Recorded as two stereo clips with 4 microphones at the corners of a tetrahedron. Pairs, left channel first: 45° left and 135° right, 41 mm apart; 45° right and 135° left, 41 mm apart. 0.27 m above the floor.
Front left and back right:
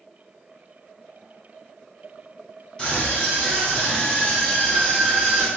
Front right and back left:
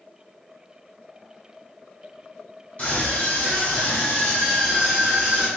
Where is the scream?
10° right, 1.5 m; by 5.5 s 110° left, 1.3 m.